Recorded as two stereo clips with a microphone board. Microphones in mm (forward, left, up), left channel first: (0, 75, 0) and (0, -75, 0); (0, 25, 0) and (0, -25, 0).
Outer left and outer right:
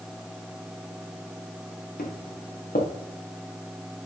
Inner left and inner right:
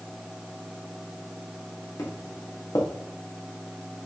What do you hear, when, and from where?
2.0 s footsteps: 85° left, 3.5 m